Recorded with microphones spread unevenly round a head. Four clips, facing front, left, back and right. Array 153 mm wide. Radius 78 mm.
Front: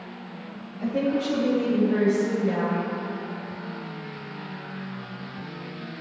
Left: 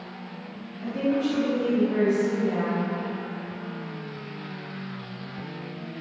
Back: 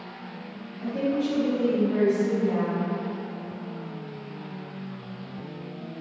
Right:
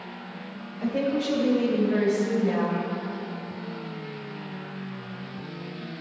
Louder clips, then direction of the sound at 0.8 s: Left 1 dB, front 1 dB; 55° right.